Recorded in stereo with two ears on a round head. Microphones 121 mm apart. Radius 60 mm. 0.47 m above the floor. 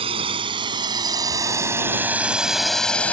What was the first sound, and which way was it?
A drone, 45° right (ahead or behind).